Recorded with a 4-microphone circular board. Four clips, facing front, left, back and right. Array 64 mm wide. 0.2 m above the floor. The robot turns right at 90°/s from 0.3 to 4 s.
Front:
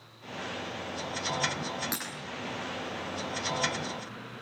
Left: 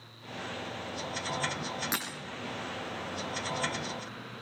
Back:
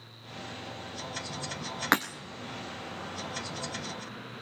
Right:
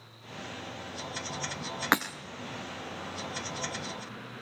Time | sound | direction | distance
1.9 | breaking glass | 135° right | 3 m